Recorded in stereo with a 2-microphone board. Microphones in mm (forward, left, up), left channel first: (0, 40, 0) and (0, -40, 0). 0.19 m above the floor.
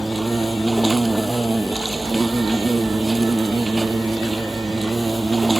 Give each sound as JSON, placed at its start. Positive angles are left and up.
{"t": 0.0, "sound": "an insect", "side_deg": -5}